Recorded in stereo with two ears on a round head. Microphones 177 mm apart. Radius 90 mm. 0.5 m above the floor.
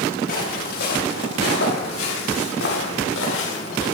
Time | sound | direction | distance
0.3 | footsteps | 45° left (ahead or behind) | 7 m